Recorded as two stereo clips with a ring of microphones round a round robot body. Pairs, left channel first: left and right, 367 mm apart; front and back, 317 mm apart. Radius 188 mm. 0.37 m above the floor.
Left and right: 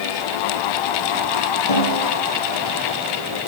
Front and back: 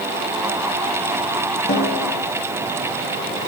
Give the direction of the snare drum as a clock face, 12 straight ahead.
10 o'clock.